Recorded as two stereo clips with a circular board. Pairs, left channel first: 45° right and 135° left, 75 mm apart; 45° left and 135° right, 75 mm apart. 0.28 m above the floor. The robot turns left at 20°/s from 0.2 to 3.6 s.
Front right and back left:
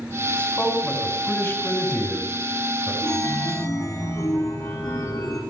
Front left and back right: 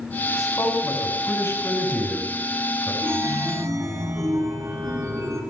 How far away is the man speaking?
About 3 m.